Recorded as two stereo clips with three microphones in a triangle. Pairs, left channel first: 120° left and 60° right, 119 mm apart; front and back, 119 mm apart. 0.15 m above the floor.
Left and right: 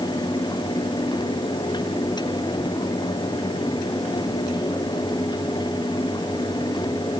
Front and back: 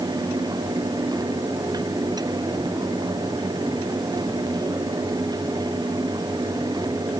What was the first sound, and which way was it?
Only background noise.